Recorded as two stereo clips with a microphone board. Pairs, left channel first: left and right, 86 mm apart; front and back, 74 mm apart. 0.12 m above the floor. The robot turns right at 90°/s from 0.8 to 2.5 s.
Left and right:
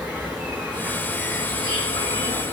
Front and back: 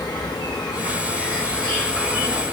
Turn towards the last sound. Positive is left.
turn(degrees=135)